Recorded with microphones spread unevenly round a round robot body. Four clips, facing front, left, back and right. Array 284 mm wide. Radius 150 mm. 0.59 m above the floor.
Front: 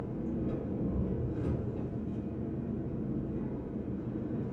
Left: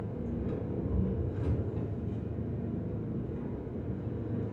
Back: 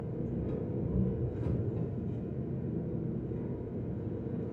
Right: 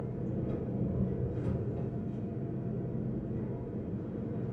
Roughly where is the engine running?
Behind left.